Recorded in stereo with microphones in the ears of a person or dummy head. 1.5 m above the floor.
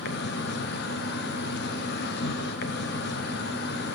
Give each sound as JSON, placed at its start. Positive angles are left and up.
{"t": 0.0, "sound": "an insect", "side_deg": 60, "distance_m": 0.9}